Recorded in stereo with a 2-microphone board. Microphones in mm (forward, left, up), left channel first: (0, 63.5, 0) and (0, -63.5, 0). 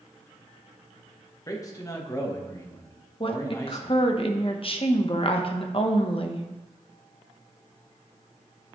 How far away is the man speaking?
About 1.2 m.